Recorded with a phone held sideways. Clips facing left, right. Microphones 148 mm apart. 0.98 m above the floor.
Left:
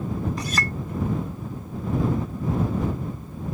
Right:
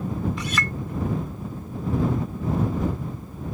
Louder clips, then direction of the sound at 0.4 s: Even; 40° left (ahead or behind).